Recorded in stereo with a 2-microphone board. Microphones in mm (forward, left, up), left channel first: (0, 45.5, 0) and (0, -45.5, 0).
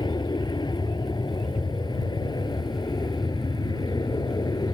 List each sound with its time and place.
0.0 s an aircraft: 55° left (ahead or behind); by 4.7 s 50° left (ahead or behind)